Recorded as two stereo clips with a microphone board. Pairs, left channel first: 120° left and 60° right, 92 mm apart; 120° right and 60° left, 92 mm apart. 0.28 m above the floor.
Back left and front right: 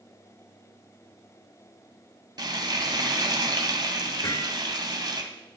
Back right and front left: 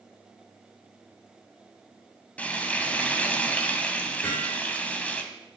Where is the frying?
50° right, 1.6 m.